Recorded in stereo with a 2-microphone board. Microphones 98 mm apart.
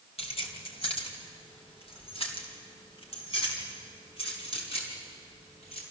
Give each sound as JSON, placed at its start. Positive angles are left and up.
{"t": 0.2, "sound": "keys jangling", "side_deg": 85, "distance_m": 3.0}